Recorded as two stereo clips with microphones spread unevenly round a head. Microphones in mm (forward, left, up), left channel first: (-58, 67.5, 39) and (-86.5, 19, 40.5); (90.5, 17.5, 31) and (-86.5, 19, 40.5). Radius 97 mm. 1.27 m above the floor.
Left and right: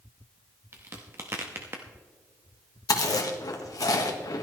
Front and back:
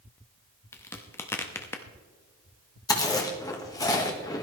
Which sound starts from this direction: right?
A crack, at 0.7 s.